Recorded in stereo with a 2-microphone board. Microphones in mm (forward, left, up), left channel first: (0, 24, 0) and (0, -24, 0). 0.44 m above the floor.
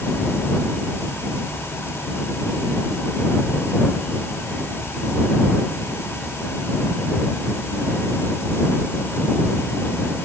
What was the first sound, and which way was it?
Only background noise.